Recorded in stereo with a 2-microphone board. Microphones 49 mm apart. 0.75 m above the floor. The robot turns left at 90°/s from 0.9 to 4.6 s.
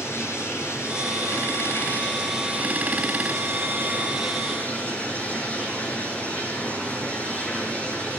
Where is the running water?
120° left, 7 m; by 8.2 s 150° left, 7 m.